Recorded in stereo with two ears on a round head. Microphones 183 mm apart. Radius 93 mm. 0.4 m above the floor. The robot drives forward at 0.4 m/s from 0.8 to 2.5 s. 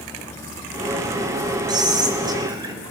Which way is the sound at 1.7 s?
20° right (ahead or behind).